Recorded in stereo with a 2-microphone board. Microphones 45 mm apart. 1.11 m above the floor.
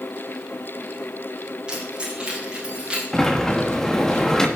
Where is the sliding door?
15° left (ahead or behind), 1.3 m.